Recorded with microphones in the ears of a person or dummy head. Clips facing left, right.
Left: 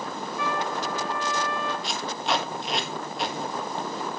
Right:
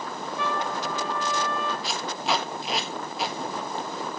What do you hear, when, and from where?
0.4 s a trumpet: 25° right (ahead or behind), 3 m
1.8 s tape being pulled: centre (ahead or behind), 1.5 m